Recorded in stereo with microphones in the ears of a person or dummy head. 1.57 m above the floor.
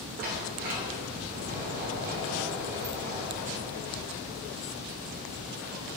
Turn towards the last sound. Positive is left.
turn(degrees=-40)  # may be behind; listen again after turning